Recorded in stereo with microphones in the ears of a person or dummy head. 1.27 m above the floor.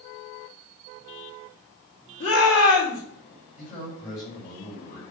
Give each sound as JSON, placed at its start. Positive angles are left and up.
{"t": 2.2, "sound": "a shout", "side_deg": 65, "distance_m": 4.0}
{"t": 3.6, "sound": "a man speaking", "side_deg": 40, "distance_m": 6.0}